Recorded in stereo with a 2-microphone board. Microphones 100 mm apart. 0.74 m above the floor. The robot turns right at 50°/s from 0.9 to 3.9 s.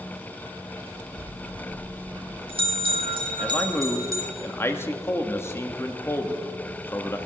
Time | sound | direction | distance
1.2 | a bell | 170° right | 4 m
3.4 | a man speaking | 10° left (ahead or behind) | 1.4 m